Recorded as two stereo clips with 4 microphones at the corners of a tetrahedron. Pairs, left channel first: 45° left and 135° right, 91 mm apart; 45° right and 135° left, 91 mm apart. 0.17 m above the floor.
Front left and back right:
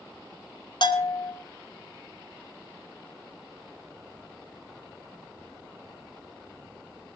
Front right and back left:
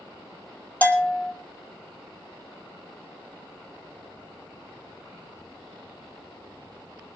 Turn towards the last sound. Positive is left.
turn(degrees=25)